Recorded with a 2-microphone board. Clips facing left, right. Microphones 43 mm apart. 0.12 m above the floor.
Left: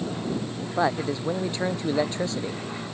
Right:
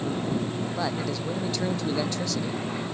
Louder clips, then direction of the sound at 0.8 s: Left 8 dB; 35° left (ahead or behind).